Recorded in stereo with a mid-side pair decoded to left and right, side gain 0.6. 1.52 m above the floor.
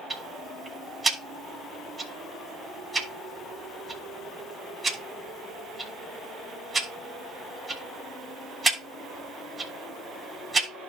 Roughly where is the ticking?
Ahead right.